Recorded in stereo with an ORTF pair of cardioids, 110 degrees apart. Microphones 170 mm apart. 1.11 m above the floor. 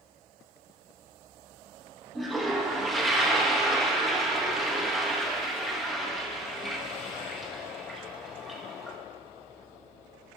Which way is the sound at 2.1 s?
Straight ahead.